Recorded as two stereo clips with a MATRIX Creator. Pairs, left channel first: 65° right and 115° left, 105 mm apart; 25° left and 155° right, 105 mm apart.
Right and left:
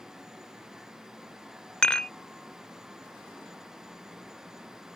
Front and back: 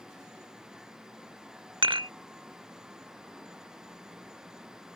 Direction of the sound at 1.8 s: 145° right.